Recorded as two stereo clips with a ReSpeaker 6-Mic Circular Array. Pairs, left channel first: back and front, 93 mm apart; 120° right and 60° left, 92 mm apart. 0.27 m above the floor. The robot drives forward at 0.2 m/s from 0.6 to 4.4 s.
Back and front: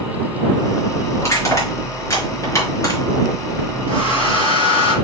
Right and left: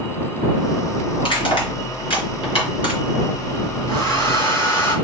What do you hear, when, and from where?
1.2 s crushing: 120° right, 3.5 m; by 3.0 s 125° right, 4 m
3.9 s a hair dryer: 170° right, 5 m